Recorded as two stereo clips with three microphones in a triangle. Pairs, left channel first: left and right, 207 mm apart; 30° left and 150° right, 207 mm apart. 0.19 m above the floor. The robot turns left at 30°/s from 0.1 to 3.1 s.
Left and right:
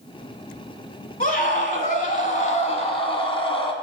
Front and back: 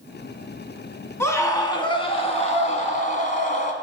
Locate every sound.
1.2 s a scream: 100° left, 1.3 m; by 3.7 s 45° left, 1.3 m